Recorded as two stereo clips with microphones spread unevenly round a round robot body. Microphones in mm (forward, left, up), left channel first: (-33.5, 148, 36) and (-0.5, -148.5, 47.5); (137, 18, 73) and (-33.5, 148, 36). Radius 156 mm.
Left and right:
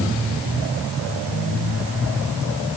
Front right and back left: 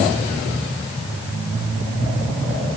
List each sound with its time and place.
Only background noise.